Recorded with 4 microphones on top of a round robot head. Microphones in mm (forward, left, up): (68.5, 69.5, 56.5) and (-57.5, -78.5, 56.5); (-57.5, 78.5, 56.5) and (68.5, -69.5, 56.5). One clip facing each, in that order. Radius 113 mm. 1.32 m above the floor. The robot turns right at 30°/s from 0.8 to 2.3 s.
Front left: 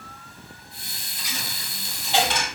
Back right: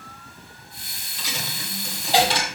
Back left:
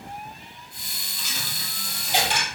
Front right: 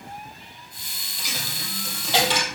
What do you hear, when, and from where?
1.2 s a dropped coin: 105° right, 2.5 m; by 2.5 s 75° right, 2.5 m